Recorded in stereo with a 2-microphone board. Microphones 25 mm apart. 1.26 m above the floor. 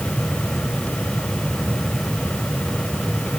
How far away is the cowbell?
I don't hear a cowbell.